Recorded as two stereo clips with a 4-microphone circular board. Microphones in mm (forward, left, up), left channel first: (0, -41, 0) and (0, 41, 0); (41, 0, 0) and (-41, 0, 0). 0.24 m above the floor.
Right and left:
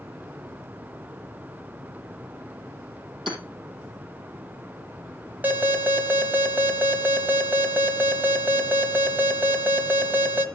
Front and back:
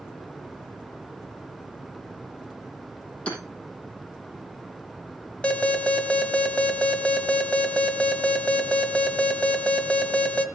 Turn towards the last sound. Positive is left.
turn(degrees=60)